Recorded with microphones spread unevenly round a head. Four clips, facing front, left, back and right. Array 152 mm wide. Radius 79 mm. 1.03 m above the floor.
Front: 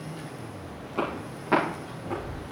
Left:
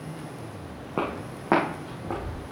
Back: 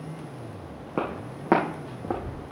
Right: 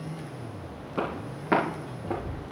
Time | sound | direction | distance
1.0 | footsteps | 140° left | 3 m